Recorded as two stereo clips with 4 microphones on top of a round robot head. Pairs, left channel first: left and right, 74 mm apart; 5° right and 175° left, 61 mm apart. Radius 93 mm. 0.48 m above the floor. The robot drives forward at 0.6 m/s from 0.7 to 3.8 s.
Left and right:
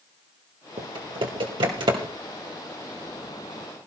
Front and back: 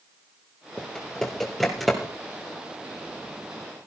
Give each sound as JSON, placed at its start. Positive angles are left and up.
{"t": 0.8, "sound": "typing on a keyboard", "azimuth_deg": -80, "distance_m": 3.0}